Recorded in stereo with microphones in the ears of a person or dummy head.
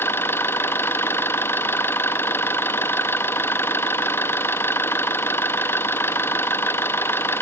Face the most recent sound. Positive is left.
turn(degrees=15)  # may be behind; listen again after turning